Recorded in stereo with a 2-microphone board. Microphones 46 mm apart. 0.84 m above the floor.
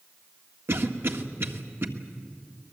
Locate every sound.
0.7 s a cough: 55° right (ahead or behind), 1.7 m